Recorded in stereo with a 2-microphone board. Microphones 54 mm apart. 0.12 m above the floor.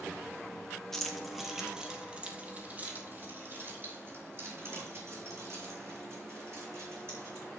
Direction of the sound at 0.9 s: 10° left (ahead or behind).